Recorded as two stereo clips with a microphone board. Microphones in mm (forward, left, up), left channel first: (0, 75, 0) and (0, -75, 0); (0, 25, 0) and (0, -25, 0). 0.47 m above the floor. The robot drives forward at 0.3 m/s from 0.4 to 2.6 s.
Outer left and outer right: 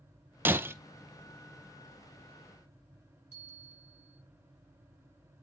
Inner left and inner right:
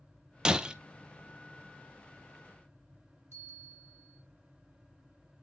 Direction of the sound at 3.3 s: 55° left (ahead or behind).